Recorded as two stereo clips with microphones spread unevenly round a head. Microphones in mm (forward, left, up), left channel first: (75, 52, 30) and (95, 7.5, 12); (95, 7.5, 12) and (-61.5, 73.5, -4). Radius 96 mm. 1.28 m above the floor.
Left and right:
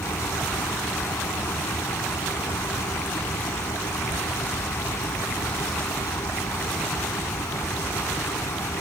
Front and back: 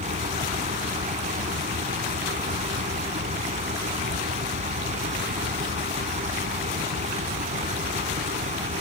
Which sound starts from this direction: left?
A fan, at 0.0 s.